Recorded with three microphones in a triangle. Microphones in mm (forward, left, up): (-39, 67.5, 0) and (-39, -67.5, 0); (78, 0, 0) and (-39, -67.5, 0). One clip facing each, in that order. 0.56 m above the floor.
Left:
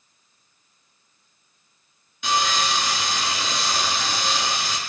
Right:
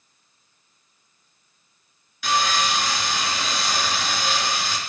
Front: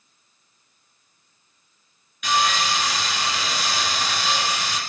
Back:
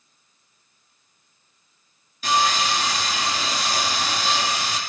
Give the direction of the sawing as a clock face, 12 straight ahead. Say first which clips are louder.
Right 1 dB, back 1 dB; 7 o'clock.